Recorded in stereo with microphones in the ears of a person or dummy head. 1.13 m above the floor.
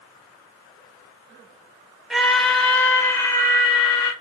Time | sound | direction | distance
2.1 | a scream | centre (ahead or behind) | 1.6 m